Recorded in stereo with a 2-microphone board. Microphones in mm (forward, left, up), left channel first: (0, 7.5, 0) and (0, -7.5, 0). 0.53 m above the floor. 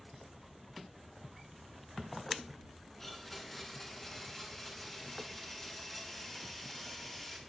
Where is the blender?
20° left (ahead or behind), 6.5 m.